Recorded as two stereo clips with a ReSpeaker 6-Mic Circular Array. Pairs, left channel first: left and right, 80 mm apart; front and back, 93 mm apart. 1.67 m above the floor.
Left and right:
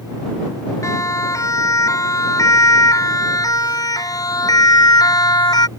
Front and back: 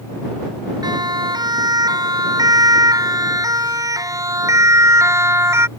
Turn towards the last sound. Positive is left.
turn(degrees=120)